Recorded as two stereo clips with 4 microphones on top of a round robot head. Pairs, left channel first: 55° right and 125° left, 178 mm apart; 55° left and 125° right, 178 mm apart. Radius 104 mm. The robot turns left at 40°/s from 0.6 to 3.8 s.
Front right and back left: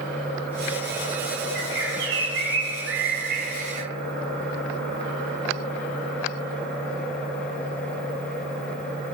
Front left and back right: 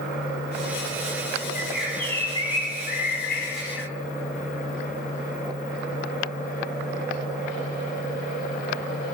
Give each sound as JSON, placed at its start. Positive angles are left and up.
{"t": 1.6, "sound": "a bird", "azimuth_deg": 155, "distance_m": 5.0}